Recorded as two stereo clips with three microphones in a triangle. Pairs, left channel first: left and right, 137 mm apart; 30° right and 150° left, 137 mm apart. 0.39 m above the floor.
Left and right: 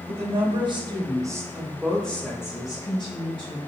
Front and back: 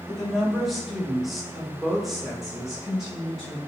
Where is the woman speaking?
120° right, 1.6 m; by 3.6 s 60° left, 1.4 m.